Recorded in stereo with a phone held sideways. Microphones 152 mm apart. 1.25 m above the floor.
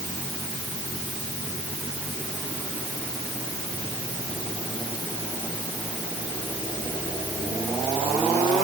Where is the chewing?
I don't hear chewing.